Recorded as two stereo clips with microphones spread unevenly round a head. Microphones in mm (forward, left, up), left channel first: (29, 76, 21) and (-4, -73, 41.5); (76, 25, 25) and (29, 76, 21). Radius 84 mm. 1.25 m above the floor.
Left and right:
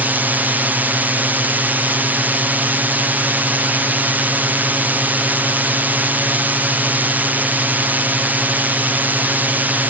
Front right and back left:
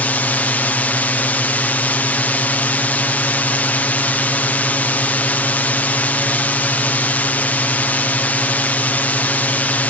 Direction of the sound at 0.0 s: 20° right.